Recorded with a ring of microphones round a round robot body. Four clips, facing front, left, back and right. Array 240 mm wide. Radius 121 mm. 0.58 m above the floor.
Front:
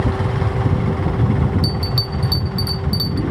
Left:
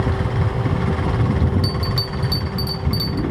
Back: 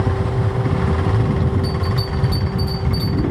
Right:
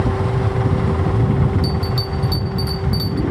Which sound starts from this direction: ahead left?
A bell, at 1.6 s.